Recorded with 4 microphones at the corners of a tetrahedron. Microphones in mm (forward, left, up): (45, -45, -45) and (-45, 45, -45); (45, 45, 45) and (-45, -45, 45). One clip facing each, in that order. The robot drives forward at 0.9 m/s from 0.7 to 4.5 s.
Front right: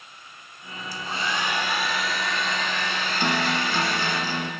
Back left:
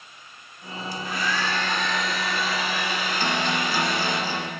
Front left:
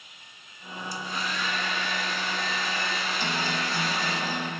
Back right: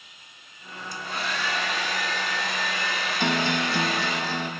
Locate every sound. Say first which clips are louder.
0.9 s a hair dryer: back left 1 dB, back right 2 dB; 100° right, 1.3 m; by 4.2 s 160° right, 3.5 m
3.2 s a guitar: front right 2 dB, back right 8 dB; 115° right, 0.8 m; by 4.5 s 155° right, 1.7 m